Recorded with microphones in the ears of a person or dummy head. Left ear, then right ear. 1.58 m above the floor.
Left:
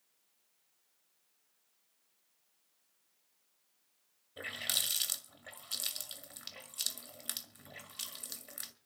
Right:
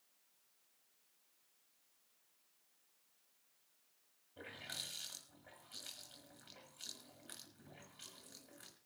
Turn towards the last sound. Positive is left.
turn(degrees=70)  # may be behind; listen again after turning